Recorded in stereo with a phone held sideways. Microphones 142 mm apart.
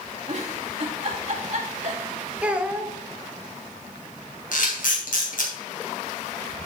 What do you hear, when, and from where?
0.3 s a giggle: 50° right (ahead or behind), 2.5 m
2.4 s a child speaking: 10° right (ahead or behind), 1.1 m
4.5 s a camera shutter: 70° left (ahead or behind), 3 m